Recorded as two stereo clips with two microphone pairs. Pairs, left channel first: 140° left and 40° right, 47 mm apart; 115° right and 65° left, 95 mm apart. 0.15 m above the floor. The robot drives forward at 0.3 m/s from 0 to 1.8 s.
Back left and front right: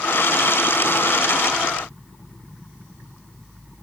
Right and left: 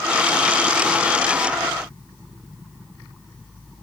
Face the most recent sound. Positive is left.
No sound to turn to.